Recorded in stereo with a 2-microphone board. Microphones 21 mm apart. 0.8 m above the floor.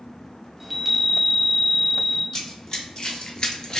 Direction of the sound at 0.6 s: 10° right (ahead or behind).